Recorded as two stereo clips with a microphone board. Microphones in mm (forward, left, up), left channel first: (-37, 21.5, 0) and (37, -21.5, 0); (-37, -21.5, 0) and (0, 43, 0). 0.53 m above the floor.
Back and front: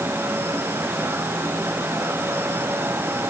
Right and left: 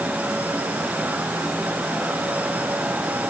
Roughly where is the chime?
I don't hear a chime.